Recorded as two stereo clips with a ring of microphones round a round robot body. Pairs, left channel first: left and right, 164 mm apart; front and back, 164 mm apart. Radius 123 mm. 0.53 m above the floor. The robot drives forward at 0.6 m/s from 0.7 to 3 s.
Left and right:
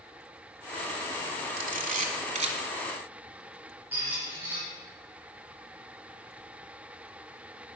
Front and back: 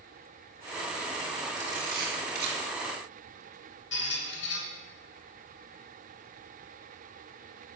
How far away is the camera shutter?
About 1.6 m.